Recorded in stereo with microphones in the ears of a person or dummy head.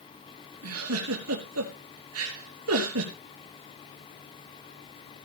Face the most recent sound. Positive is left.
turn(degrees=-85)